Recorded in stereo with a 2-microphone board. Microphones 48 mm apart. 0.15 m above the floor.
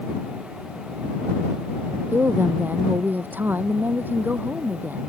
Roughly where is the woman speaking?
Right.